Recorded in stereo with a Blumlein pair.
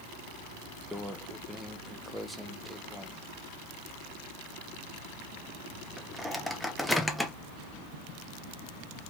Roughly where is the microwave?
Ahead.